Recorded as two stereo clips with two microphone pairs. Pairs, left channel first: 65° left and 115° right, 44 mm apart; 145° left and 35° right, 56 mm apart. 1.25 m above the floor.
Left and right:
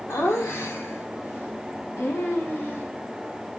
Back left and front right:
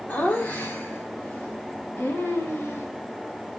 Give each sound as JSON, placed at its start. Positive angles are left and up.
{"t": 0.1, "sound": "laughter", "azimuth_deg": 70, "distance_m": 3.5}